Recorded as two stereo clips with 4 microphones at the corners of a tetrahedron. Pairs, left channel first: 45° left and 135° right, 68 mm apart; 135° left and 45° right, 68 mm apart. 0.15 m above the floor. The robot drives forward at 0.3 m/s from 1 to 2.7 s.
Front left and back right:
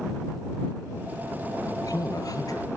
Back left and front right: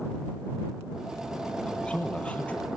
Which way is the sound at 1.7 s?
60° left.